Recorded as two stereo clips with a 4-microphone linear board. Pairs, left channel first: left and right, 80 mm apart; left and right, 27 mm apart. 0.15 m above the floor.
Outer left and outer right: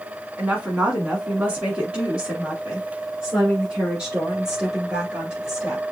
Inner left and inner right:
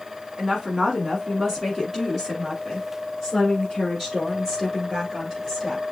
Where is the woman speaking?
15° right (ahead or behind), 1.3 m; by 5.8 s 10° right (ahead or behind), 3 m.